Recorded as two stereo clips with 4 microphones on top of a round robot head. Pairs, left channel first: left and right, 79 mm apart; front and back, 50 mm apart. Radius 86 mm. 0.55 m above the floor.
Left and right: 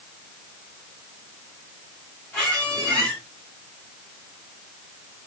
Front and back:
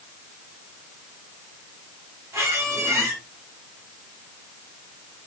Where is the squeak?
160° left, 2 m.